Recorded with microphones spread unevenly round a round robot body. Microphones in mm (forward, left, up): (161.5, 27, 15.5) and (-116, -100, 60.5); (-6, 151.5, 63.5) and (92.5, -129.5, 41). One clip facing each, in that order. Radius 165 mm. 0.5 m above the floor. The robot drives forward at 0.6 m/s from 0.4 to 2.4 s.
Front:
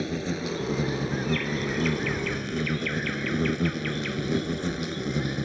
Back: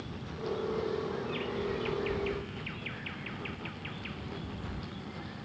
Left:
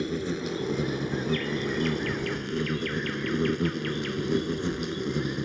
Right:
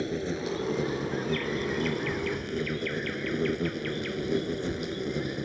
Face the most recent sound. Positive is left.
turn(degrees=40)